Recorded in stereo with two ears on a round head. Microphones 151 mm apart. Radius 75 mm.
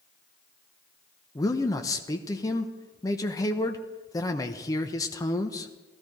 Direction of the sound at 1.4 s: 20° left (ahead or behind).